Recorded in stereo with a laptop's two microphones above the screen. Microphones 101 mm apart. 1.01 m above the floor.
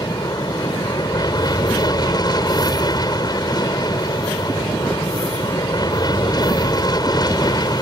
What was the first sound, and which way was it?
An aircraft, 40° left (ahead or behind).